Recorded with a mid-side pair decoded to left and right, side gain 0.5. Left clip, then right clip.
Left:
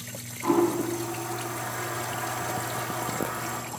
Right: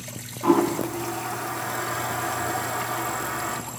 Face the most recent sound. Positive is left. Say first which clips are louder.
# right 3 dB
turn(degrees=-35)